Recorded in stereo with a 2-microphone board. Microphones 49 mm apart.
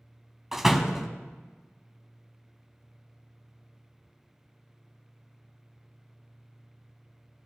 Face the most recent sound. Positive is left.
turn(degrees=-5)  # may be behind; listen again after turning